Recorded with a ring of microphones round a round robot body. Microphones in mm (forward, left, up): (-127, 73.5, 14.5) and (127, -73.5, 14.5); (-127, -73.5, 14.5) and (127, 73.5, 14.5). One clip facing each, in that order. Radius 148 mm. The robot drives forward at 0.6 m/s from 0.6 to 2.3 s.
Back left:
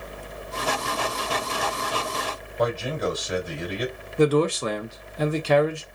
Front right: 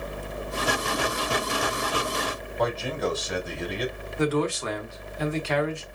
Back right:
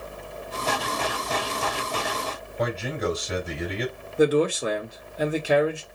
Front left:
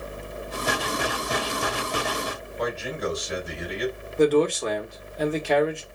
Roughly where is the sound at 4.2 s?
Behind left.